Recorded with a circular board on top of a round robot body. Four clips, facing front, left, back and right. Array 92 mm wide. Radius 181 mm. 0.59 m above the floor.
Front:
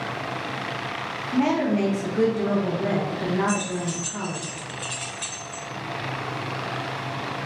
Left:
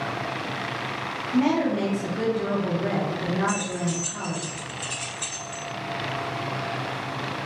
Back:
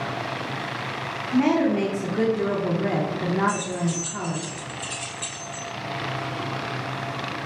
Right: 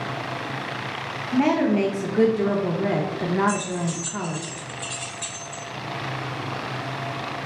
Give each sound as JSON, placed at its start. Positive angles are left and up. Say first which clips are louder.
{"t": 1.3, "sound": "a woman speaking", "louder": "right 2 dB, back 2 dB", "azimuth_deg": -105, "distance_m": 0.6}
{"t": 3.5, "sound": "keys jangling", "louder": "right 2 dB, back 1 dB", "azimuth_deg": 15, "distance_m": 1.5}